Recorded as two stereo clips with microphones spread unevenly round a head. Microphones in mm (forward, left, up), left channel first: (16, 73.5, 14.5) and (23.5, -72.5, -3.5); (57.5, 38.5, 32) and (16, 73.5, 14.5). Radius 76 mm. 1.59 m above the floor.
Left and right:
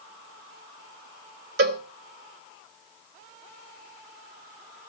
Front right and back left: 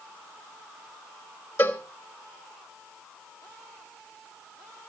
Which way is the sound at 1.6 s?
90° right.